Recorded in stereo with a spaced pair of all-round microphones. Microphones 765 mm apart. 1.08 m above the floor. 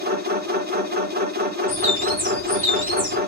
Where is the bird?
40° right (ahead or behind), 2.5 m.